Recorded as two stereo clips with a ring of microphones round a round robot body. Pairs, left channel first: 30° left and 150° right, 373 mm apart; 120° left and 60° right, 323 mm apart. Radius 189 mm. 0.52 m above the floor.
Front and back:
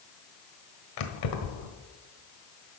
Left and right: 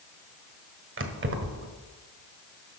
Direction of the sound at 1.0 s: 5° right.